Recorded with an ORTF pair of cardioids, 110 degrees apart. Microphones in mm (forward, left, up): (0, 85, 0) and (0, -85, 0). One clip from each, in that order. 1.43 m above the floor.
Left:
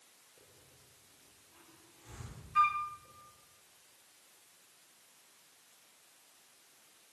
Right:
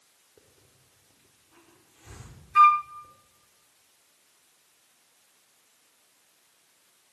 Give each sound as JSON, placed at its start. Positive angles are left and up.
{"t": 0.4, "sound": "a hiss", "azimuth_deg": -60, "distance_m": 5.5}
{"t": 2.5, "sound": "a flute", "azimuth_deg": -45, "distance_m": 0.9}